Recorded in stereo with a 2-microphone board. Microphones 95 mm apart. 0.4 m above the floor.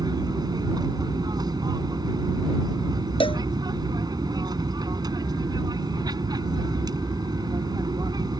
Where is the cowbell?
70° left (ahead or behind).